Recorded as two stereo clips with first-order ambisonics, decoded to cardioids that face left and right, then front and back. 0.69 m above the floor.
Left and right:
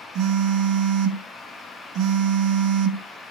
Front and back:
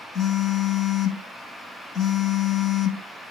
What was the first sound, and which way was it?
A phone buzzing, 55° right.